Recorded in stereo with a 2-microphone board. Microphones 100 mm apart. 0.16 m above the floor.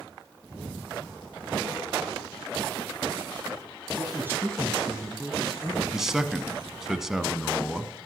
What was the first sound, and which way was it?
A man speaking, 25° right (ahead or behind).